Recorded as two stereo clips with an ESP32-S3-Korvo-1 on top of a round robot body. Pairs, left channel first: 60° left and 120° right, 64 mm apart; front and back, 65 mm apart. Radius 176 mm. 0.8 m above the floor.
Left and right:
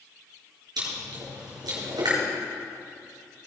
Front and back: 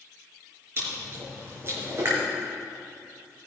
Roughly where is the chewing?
Behind right.